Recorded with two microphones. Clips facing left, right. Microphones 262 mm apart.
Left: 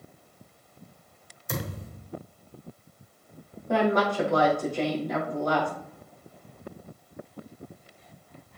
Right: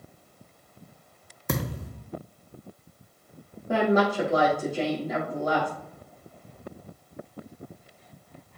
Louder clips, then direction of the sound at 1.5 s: Right 4 dB; 75° right (ahead or behind).